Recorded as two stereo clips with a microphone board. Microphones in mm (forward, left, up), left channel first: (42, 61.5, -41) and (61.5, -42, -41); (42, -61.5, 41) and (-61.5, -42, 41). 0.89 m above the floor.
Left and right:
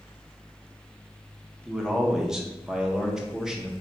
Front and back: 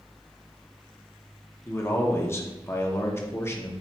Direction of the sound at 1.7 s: 5° right.